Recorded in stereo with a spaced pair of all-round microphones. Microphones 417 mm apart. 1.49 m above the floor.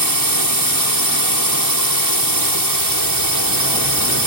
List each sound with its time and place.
0.0 s a drone: 50° right (ahead or behind)